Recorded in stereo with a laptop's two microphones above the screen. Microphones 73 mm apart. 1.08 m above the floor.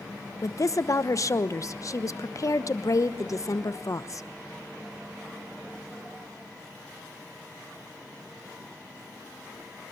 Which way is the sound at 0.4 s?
50° left (ahead or behind).